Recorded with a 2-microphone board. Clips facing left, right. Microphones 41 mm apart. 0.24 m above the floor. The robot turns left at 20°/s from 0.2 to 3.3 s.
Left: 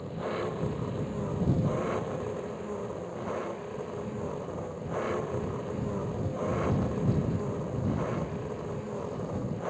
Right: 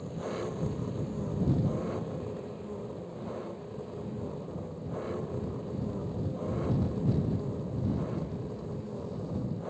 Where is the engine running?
150° left; by 9.7 s 90° left.